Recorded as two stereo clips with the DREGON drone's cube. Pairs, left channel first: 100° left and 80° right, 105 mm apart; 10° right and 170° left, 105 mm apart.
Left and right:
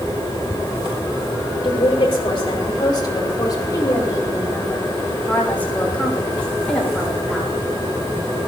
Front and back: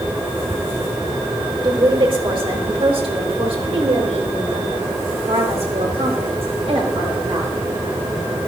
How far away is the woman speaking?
About 5 m.